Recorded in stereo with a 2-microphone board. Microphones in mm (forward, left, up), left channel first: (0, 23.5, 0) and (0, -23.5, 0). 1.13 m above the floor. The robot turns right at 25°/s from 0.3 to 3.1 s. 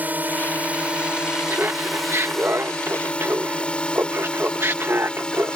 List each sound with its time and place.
0.0 s a drone: 40° right (ahead or behind); by 5.6 s 20° left (ahead or behind)
1.5 s laughter: 115° right; by 5.6 s 75° right